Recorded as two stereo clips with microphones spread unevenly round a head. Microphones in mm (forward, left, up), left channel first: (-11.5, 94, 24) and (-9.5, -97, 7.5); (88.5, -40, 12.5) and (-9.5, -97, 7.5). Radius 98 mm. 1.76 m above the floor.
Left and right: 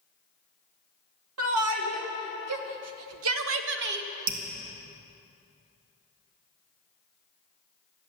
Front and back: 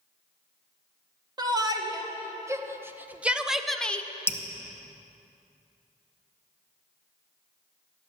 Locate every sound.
1.4 s a shout: 95° right, 2 m; by 4.1 s 45° right, 1.0 m
4.3 s dripping: 40° right, 1.2 m